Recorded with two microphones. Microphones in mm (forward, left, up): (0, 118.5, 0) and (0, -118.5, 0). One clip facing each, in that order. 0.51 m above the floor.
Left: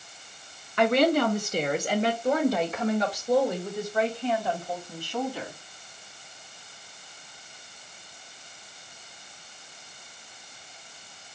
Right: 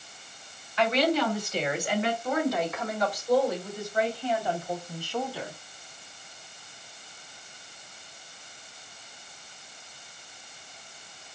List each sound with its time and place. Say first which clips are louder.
0.8 s a woman speaking: left 3 dB; 50° left (ahead or behind), 1.2 m; by 5.5 s 15° left (ahead or behind), 3.5 m